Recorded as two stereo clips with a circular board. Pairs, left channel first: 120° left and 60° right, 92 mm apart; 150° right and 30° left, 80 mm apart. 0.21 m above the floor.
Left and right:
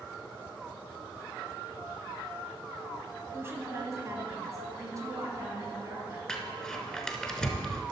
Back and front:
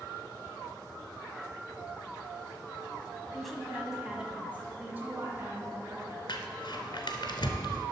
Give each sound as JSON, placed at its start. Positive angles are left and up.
{"t": 3.3, "sound": "a woman speaking", "azimuth_deg": -70, "distance_m": 1.3}
{"t": 6.3, "sound": "crumpling", "azimuth_deg": -160, "distance_m": 1.0}